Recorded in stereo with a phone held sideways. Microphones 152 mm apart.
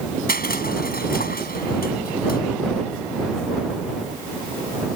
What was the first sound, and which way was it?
Crushing, 80° left.